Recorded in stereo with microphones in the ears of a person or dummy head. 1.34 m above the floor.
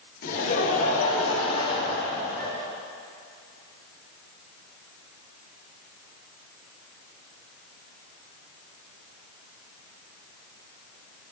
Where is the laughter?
50° left (ahead or behind), 2 m; by 2.5 s 20° left (ahead or behind), 3 m.